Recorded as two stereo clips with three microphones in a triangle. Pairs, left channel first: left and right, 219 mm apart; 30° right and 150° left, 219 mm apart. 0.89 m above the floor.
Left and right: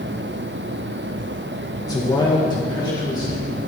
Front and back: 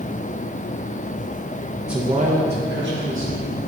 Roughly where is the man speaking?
Ahead left.